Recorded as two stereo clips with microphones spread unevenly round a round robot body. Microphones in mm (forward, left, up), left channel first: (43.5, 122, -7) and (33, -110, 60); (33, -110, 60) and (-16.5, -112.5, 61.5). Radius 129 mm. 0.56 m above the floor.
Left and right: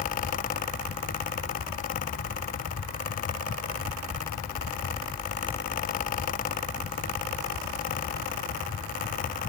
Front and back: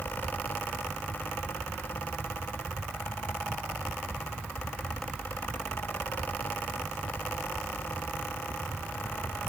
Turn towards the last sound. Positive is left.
No sound to turn to.